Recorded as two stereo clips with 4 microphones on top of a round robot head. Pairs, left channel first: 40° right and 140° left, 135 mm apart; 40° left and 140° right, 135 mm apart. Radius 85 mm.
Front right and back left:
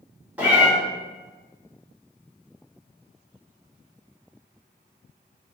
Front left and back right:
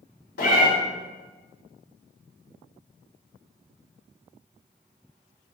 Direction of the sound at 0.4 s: 60° left.